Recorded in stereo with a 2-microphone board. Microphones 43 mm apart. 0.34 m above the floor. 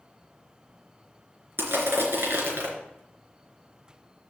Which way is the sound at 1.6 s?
60° right (ahead or behind).